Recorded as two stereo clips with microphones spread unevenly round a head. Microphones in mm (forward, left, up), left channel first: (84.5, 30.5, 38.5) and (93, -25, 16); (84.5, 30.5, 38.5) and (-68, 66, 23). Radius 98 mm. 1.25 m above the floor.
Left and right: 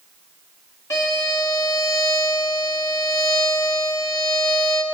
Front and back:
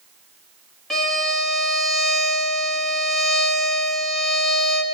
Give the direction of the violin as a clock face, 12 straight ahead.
9 o'clock.